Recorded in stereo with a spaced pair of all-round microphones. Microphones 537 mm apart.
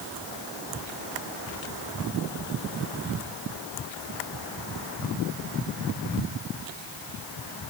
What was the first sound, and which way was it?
Only background noise.